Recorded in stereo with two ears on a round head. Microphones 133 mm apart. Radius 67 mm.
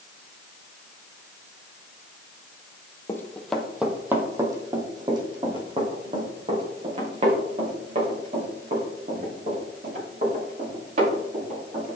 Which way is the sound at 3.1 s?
20° left (ahead or behind).